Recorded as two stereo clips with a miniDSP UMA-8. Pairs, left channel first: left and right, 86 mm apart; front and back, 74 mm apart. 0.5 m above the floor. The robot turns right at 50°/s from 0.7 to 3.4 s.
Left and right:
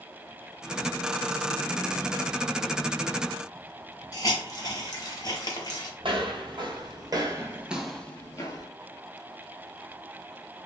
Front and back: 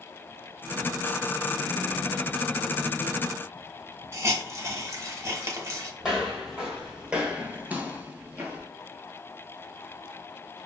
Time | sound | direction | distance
4.1 | a hiss | 130° left | 0.8 m
6.0 | footsteps | 95° right | 1.1 m